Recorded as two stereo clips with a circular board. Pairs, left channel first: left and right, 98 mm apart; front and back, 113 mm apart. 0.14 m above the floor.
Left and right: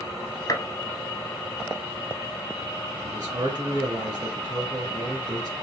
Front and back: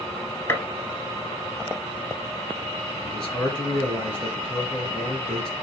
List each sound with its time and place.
0.5 s a gunshot: 60° left, 0.7 m
3.0 s a man speaking: 80° right, 1.8 m